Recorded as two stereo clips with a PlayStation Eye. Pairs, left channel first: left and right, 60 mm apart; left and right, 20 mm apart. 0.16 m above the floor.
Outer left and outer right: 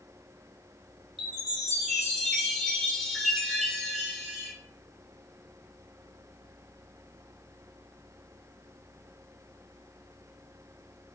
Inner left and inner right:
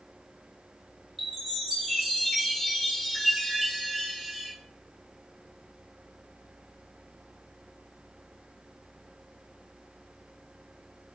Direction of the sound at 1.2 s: 5° left (ahead or behind).